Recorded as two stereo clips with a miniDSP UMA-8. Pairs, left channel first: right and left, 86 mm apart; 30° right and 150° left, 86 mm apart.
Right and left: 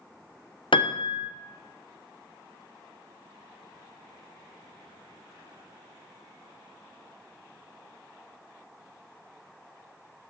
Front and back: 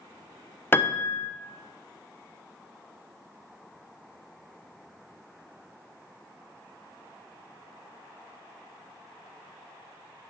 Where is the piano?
95° right, 0.6 m.